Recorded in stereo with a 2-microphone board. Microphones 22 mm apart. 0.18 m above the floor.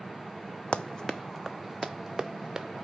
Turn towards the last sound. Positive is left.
turn(degrees=-20)  # may be behind; listen again after turning